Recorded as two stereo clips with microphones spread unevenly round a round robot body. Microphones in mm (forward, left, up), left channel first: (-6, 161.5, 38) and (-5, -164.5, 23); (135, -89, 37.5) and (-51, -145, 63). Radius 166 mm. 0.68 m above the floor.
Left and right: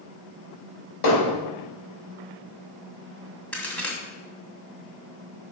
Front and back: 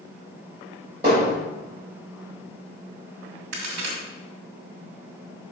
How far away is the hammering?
About 3.5 m.